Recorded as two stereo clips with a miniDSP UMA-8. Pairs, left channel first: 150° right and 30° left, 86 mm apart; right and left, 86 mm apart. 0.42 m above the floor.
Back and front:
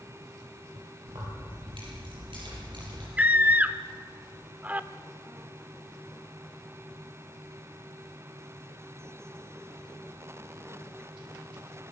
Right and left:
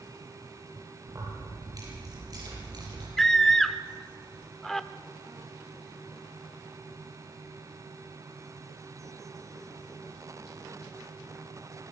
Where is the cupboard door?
I don't hear a cupboard door.